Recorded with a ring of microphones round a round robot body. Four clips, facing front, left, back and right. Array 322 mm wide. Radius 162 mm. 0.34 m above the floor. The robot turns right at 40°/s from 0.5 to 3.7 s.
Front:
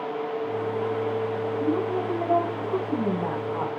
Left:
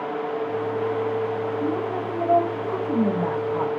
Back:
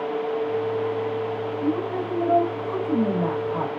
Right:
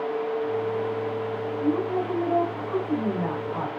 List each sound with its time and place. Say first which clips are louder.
1.6 s a woman speaking: right 1 dB, even; 90° left, 3 m; by 3.7 s 175° left, 3 m